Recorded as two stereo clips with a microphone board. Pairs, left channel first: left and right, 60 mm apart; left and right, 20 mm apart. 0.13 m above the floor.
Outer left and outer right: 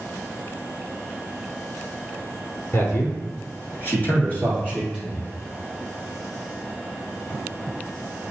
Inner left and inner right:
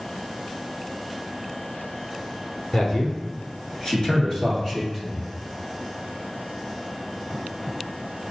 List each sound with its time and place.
2.7 s a man speaking: 45° left (ahead or behind), 1.8 m; by 5.2 s 15° left (ahead or behind), 2.5 m